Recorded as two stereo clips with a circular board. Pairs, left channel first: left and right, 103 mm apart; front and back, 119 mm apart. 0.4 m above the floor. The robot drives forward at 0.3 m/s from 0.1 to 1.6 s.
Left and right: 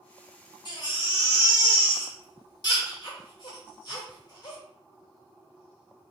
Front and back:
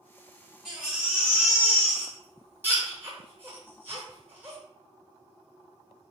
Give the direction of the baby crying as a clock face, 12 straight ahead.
9 o'clock.